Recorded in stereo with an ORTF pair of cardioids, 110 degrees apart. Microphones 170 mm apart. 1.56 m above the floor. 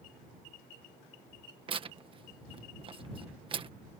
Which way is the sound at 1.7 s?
30° right.